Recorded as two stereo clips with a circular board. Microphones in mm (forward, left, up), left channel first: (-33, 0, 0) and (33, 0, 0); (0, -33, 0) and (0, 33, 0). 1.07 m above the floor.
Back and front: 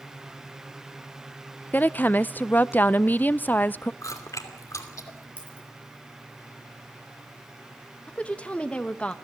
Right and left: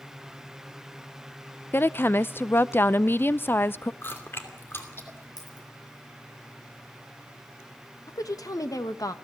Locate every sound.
1.7 s a woman speaking: 130° right, 0.5 m
4.0 s chewing: 145° right, 2.5 m
5.4 s a dropped coin: 70° right, 8 m
8.1 s a woman speaking: 110° right, 1.3 m